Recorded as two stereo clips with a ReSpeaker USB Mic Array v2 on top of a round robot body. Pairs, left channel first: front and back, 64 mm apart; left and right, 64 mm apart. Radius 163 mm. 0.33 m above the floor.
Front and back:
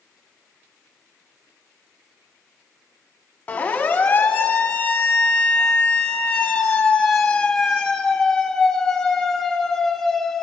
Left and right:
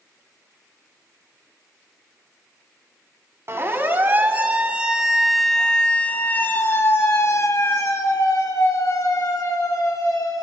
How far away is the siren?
About 2.5 m.